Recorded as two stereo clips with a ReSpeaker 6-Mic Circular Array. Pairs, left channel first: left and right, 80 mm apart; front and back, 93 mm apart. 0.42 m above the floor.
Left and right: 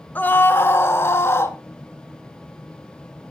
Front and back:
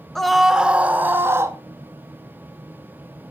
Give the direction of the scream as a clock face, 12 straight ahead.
9 o'clock.